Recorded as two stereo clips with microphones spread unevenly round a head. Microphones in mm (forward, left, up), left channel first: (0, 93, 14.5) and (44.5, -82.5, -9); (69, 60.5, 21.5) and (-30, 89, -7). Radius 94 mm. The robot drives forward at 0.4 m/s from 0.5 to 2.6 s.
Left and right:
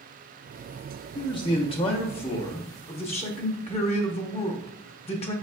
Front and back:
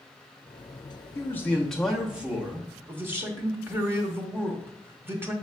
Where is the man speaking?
55° left, 0.7 m; by 5.3 s 150° left, 0.8 m.